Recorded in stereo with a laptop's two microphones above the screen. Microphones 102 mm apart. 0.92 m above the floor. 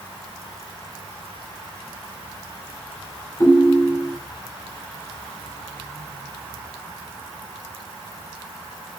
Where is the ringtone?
25° left (ahead or behind), 1.7 m.